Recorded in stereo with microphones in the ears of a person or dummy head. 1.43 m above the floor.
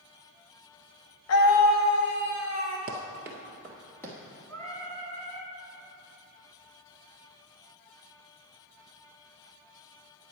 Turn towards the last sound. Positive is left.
turn(degrees=20)  # may be behind; listen again after turning